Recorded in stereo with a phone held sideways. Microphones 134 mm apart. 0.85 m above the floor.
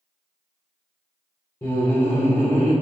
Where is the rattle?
I don't hear a rattle.